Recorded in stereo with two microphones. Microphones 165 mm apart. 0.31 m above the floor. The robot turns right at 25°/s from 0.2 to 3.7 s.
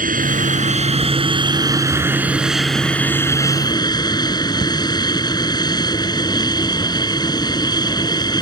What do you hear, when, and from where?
0.0 s an aircraft: 60° right; by 8.4 s 25° left